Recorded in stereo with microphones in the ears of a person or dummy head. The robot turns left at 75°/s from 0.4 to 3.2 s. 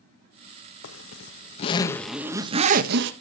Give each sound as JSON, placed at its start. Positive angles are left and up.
{"t": 0.8, "sound": "a zipper", "azimuth_deg": 95, "distance_m": 1.4}